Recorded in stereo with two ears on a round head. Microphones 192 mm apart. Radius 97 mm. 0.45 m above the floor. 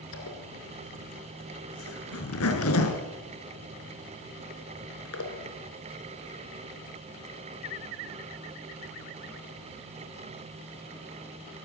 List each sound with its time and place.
0.1 s a zipper: 70° left (ahead or behind), 4 m